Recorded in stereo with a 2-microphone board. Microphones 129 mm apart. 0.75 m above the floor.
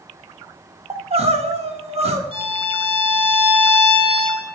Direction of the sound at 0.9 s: 50° right (ahead or behind).